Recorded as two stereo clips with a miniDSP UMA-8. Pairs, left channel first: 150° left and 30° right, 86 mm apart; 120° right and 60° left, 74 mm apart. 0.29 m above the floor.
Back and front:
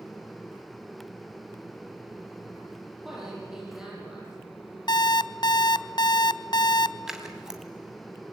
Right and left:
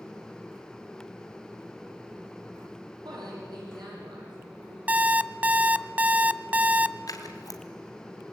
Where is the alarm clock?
130° left, 0.6 m.